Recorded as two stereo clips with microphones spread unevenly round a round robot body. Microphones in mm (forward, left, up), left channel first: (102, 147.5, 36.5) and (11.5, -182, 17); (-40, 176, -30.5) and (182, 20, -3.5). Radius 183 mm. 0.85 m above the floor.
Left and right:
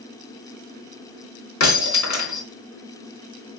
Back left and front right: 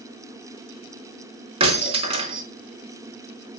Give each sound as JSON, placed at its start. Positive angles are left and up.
{"t": 1.6, "sound": "breaking glass", "azimuth_deg": 35, "distance_m": 4.5}